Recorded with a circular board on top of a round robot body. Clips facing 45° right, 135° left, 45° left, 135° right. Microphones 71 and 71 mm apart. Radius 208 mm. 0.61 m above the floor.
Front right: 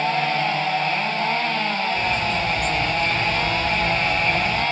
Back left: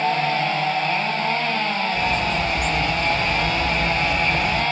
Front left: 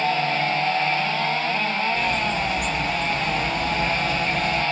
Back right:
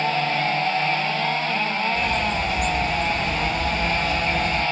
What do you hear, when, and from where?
1.9 s a bird: 140° left, 2.5 m